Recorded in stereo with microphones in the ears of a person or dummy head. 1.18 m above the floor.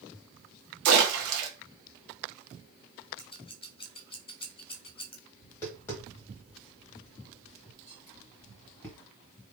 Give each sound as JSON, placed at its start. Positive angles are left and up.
{"t": 0.8, "sound": "a splash", "side_deg": -70, "distance_m": 1.2}
{"t": 3.2, "sound": "scissors", "side_deg": 25, "distance_m": 0.6}
{"t": 5.4, "sound": "tapping", "side_deg": 15, "distance_m": 1.1}